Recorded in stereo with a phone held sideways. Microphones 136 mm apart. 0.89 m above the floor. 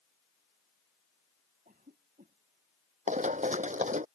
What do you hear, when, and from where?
1.6 s a cough: 85° right
3.1 s running footsteps: 65° right (ahead or behind)